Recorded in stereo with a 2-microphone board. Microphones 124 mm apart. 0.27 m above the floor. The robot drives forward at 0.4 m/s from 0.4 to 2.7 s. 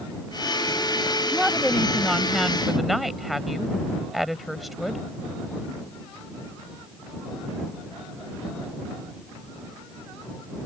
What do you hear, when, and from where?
1.3 s a woman speaking: centre (ahead or behind)